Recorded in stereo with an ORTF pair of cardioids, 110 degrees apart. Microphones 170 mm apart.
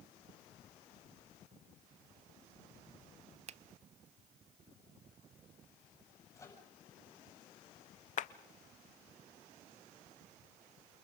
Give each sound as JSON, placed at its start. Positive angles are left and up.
{"t": 3.5, "sound": "a finger snap", "azimuth_deg": -40, "distance_m": 0.6}
{"t": 6.3, "sound": "a microwave", "azimuth_deg": 20, "distance_m": 9.0}
{"t": 8.2, "sound": "a clap", "azimuth_deg": 50, "distance_m": 0.9}